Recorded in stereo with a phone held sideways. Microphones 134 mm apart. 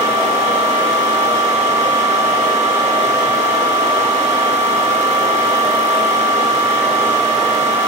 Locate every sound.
0.0 s a fan: 60° right (ahead or behind), 1.0 m